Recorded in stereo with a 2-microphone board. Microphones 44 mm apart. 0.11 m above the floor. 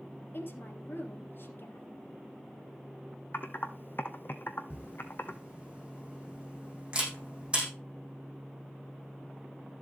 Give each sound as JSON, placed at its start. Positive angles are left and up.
{"t": 0.3, "sound": "a woman speaking", "side_deg": 55, "distance_m": 2.0}
{"t": 3.3, "sound": "typing on a keyboard", "side_deg": 55, "distance_m": 1.0}
{"t": 4.7, "sound": "a camera shutter", "side_deg": -25, "distance_m": 5.0}